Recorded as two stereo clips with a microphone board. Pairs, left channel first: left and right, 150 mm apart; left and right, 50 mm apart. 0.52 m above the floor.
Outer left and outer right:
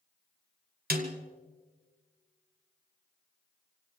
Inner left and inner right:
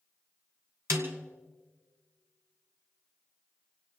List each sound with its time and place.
0.9 s a snare drum: 90° right, 1.8 m